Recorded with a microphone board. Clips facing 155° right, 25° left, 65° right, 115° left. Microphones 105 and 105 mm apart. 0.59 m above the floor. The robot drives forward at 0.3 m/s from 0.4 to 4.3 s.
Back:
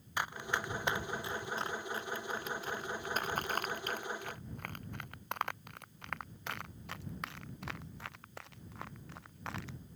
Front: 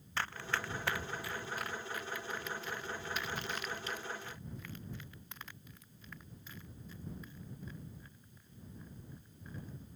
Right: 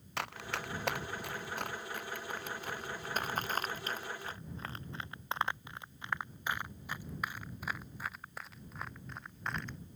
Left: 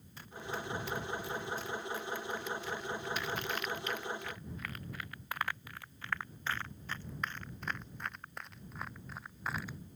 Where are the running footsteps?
80° right; by 9.8 s 160° right.